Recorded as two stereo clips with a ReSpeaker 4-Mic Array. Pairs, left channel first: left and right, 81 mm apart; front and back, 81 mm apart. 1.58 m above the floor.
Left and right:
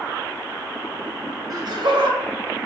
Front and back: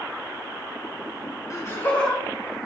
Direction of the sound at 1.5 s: 45° right.